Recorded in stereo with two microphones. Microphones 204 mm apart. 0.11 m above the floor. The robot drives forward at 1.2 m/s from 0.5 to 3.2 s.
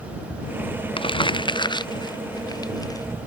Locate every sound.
1.0 s crumpling: 25° left (ahead or behind); by 3.0 s 15° left (ahead or behind)